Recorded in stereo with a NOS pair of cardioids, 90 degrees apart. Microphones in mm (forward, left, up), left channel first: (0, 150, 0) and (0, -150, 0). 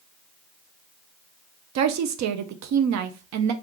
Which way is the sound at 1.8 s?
70° right.